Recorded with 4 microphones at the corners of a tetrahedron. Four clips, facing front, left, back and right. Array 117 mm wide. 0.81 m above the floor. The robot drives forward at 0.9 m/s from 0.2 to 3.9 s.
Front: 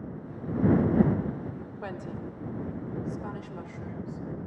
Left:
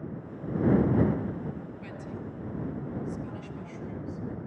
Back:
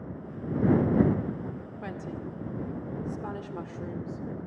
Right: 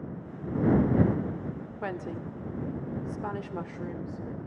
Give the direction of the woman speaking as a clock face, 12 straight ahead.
3 o'clock.